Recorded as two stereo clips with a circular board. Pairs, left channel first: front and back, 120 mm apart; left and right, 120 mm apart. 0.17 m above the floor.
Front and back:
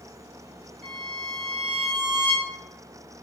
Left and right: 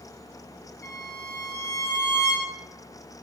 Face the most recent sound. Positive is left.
turn(degrees=135)